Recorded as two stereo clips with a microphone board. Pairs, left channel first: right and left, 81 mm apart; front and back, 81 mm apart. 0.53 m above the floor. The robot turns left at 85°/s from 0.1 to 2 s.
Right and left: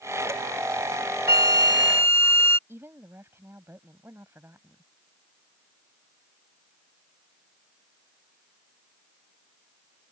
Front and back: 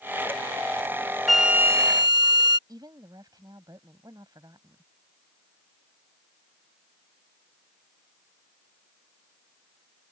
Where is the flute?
85° right; by 2.6 s 150° right.